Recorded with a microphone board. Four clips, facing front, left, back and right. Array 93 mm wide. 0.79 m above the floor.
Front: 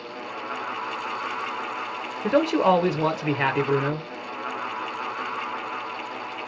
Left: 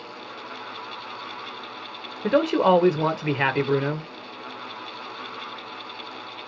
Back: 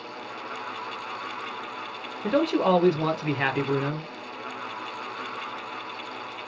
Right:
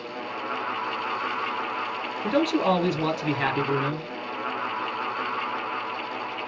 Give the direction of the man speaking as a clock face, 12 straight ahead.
10 o'clock.